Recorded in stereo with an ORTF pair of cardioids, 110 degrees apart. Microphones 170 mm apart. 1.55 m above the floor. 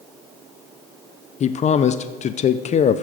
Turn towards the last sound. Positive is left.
turn(degrees=40)